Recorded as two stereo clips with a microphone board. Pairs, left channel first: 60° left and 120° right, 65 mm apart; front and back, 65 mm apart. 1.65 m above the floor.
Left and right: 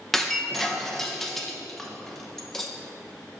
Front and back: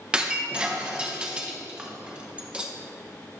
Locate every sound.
0.1 s breaking glass: 140° left, 0.8 m